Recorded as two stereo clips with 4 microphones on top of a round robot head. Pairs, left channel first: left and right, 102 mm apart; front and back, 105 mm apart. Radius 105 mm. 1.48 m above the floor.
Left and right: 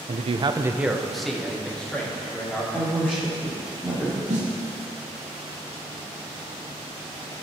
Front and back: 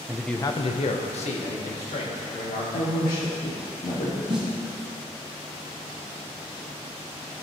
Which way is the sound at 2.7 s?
10° left.